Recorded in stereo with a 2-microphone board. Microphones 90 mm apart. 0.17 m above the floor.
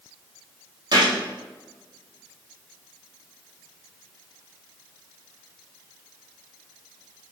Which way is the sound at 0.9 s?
50° right (ahead or behind).